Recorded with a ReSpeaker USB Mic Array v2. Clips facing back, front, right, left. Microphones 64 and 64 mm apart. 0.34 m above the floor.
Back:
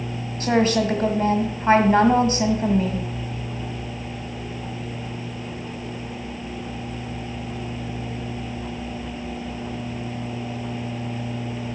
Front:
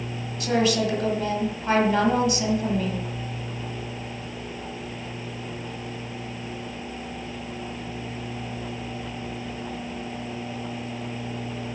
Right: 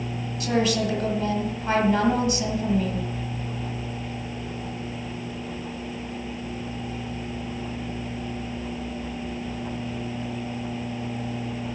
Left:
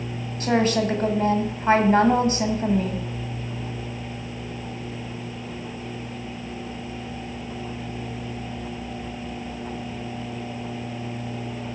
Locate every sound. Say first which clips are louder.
0.4 s a woman speaking: back 3 dB, left 3 dB; 135° left, 1.7 m